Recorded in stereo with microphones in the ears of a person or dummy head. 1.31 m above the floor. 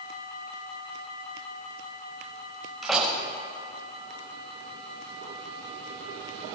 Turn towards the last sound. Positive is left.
turn(degrees=0)  # may be behind; listen again after turning